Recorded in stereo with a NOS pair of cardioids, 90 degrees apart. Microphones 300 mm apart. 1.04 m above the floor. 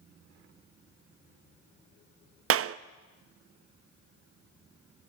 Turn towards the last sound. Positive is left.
turn(degrees=-50)